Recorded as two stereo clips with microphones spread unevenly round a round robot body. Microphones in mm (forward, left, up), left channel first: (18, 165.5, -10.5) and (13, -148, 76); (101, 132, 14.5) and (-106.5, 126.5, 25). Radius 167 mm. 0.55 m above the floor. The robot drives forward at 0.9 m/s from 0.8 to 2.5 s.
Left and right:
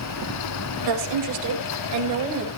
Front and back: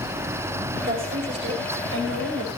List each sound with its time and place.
0.8 s a woman speaking: 115° right, 2 m; by 2.5 s 145° right, 3 m